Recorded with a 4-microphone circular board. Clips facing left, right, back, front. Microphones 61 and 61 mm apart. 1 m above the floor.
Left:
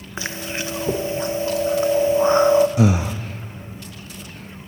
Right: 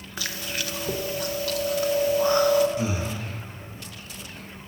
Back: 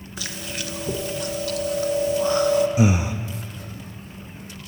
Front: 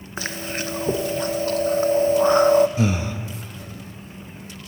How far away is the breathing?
About 1.0 m.